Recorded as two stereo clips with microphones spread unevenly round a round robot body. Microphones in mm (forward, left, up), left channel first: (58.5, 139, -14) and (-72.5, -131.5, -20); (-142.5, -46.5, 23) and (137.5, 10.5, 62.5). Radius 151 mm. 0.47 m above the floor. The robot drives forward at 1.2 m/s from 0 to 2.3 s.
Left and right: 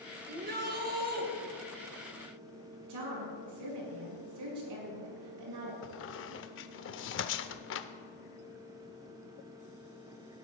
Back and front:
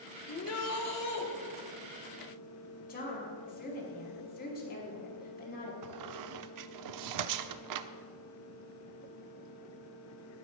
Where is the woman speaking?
110° right, 5.5 m.